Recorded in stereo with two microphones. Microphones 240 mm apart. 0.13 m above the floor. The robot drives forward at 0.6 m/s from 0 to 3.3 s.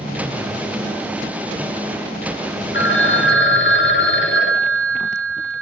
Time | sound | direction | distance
2.7 | a phone ringing | 60° left (ahead or behind) | 1.8 m